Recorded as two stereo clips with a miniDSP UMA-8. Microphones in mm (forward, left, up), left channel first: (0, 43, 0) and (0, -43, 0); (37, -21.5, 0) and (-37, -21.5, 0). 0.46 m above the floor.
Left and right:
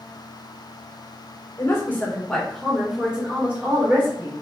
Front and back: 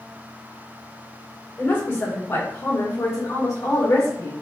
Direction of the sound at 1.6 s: 50° left.